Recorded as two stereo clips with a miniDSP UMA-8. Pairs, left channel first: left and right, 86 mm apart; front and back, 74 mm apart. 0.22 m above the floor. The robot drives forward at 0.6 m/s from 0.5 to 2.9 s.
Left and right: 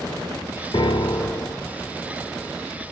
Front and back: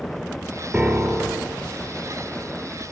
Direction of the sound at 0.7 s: 105° left.